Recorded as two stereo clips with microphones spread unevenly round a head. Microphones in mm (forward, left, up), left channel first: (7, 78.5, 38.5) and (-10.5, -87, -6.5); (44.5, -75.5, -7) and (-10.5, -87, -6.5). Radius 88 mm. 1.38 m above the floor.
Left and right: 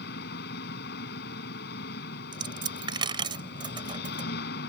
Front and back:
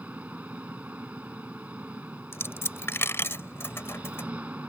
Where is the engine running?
110° left.